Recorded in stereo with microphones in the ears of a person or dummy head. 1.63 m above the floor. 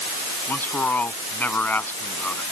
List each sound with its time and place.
0.5 s a man speaking: 10° left (ahead or behind)